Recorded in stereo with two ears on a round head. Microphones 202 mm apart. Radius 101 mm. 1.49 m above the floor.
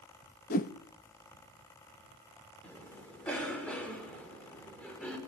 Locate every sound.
0.5 s a whoosh: 40° left (ahead or behind), 0.9 m
2.6 s a cough: 5° left (ahead or behind), 5.5 m